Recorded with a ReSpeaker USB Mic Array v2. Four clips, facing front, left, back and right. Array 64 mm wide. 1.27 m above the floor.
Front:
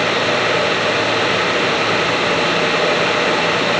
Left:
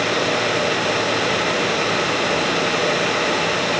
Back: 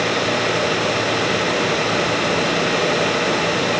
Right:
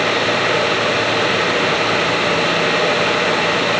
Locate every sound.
Only background noise.